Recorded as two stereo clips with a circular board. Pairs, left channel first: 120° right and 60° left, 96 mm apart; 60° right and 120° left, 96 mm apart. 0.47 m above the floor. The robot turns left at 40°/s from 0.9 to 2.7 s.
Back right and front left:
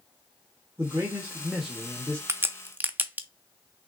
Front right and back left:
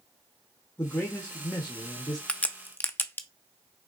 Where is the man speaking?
5° left, 1.2 m; by 2.2 s 50° right, 1.2 m.